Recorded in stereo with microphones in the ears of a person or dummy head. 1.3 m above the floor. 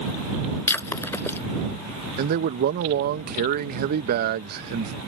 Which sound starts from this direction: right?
A man speaking, at 2.2 s.